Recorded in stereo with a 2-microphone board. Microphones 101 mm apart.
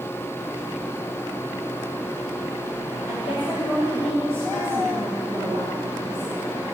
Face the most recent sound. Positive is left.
turn(degrees=60)  # may be behind; listen again after turning